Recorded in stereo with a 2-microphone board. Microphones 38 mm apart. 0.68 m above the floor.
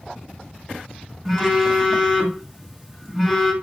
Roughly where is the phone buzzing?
Centre.